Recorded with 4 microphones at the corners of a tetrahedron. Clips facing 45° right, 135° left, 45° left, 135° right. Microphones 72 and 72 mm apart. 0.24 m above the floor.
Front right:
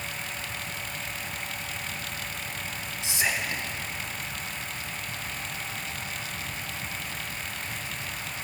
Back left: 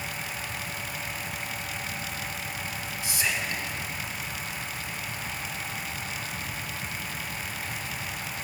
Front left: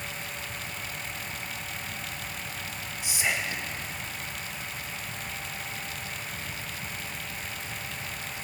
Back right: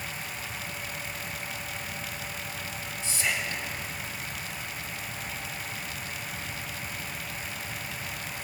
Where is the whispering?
10° right, 1.2 m.